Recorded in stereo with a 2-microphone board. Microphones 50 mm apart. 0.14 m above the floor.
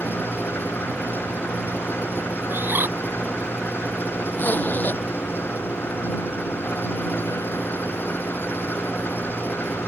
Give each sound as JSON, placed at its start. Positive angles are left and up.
{"t": 0.0, "sound": "an engine running", "side_deg": 45}
{"t": 2.5, "sound": "a bird", "side_deg": -45}
{"t": 4.3, "sound": "a zipper", "side_deg": 35}